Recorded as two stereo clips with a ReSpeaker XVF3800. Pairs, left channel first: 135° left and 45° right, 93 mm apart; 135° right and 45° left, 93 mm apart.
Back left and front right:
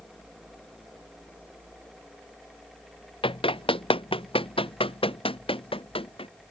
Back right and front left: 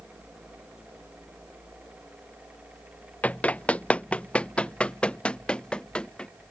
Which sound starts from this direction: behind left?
Running footsteps, at 3.2 s.